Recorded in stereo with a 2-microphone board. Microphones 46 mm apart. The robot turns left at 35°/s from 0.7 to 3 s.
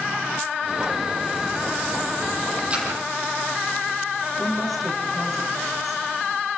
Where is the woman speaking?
5° right (ahead or behind), 6 m.